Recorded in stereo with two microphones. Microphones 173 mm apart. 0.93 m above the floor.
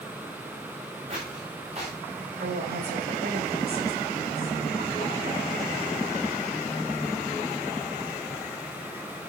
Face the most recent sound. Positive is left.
turn(degrees=-65)  # may be behind; listen again after turning